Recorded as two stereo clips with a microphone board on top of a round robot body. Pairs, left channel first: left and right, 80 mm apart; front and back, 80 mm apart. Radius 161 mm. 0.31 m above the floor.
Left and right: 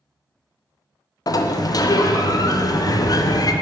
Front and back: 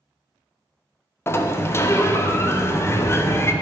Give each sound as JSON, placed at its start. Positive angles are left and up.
{"t": 1.3, "sound": "a sliding door", "azimuth_deg": 55, "distance_m": 0.7}